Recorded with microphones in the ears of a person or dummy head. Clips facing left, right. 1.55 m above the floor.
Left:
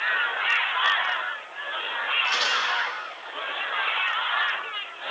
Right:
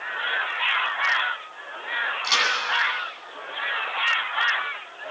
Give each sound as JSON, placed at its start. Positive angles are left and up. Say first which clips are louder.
{"t": 2.2, "sound": "a crack", "louder": "right 2 dB", "side_deg": -60, "distance_m": 9.5}